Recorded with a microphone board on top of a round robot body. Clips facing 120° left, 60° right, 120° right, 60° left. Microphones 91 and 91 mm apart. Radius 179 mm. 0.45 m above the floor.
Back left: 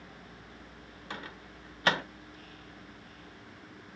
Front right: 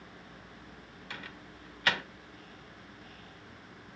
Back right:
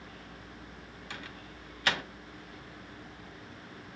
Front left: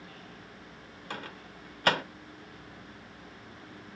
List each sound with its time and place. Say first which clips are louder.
1.1 s a microwave: back left 3 dB, front left 5 dB; 75° left, 1.1 m